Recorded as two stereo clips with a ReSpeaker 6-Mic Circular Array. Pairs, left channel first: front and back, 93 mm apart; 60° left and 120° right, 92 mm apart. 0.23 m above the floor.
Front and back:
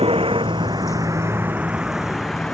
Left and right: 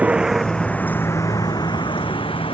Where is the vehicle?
165° left; by 2.5 s 85° left.